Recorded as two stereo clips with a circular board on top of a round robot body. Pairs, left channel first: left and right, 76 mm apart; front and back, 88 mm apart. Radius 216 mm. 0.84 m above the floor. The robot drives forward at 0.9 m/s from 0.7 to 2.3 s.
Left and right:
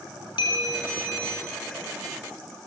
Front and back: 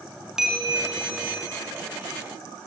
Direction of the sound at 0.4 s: 95° left.